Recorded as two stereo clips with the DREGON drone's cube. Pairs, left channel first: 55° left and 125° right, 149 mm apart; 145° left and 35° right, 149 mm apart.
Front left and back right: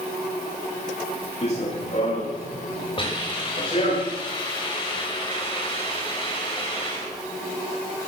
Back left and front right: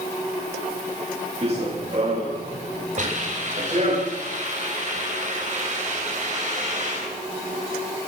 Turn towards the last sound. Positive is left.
turn(degrees=0)